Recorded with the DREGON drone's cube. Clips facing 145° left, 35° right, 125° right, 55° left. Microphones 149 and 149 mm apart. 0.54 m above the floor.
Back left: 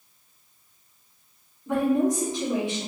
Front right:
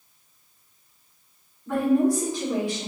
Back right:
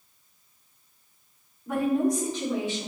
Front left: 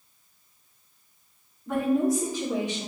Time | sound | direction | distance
1.7 | a woman speaking | 170° left | 1.2 m